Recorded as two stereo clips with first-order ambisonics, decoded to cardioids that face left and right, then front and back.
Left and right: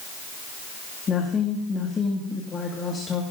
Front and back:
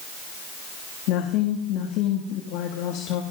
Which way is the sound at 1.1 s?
20° left.